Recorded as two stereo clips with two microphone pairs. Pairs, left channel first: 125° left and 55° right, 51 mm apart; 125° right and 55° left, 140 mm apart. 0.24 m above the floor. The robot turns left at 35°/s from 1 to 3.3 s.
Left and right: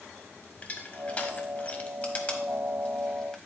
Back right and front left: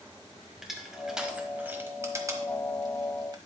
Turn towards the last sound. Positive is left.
turn(degrees=60)